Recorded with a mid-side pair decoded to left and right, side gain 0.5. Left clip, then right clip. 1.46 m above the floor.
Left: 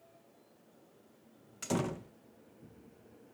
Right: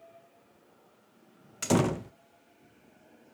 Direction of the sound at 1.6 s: 50° right.